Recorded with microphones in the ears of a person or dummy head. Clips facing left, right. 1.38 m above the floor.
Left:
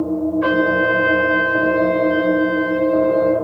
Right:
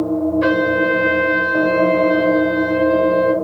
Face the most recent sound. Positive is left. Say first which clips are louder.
# right 1 dB
turn(degrees=-45)  # may be behind; listen again after turning